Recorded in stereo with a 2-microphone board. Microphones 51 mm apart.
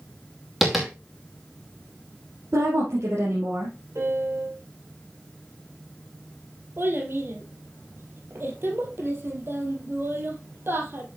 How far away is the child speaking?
About 2.5 m.